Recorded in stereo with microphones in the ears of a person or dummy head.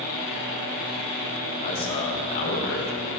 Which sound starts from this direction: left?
A man speaking, at 1.6 s.